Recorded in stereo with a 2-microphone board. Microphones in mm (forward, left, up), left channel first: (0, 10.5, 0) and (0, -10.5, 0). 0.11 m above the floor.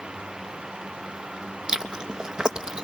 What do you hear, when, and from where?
1.7 s chewing: 35° right (ahead or behind), 0.8 m